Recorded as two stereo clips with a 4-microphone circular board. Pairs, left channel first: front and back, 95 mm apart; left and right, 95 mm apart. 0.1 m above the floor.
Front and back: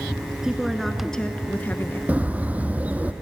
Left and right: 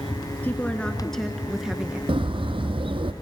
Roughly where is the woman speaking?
Behind left.